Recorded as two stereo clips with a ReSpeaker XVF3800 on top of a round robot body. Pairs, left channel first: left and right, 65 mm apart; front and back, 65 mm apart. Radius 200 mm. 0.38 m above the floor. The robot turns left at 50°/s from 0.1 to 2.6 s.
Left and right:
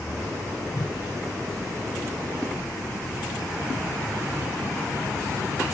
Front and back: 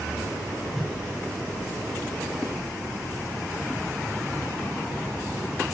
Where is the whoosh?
85° left, 3 m; by 1.0 s 75° left, 3 m.